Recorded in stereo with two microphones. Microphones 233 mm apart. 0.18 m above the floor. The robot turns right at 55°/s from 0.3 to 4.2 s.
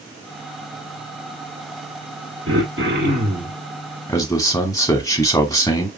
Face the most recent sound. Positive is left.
turn(degrees=15)  # may be behind; listen again after turning